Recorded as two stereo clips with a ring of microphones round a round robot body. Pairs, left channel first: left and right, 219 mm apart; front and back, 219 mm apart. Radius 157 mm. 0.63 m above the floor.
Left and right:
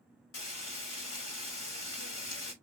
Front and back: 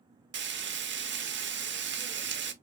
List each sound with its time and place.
0.3 s frying: 140° left, 0.9 m